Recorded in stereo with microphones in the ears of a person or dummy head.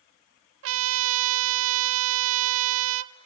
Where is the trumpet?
75° right (ahead or behind), 1.0 m.